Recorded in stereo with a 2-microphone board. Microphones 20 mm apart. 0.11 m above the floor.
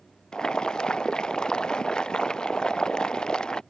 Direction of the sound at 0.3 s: 45° left (ahead or behind).